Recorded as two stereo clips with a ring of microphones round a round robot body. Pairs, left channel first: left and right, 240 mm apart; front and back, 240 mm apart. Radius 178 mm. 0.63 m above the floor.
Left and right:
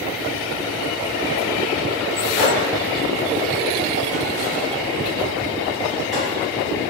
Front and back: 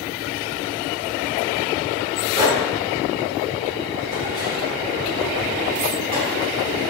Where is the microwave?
Straight behind, 2.0 m.